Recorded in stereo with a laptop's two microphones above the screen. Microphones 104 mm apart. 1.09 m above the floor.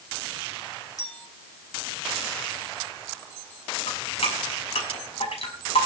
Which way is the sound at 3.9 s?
70° left (ahead or behind).